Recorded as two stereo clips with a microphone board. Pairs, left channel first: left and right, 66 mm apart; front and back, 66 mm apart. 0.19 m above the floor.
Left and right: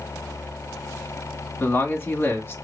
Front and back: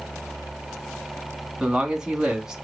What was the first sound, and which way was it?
A man speaking, 105° left.